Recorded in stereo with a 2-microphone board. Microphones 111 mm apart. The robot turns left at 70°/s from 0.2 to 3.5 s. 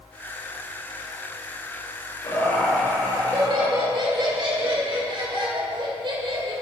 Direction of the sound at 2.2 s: 40° left.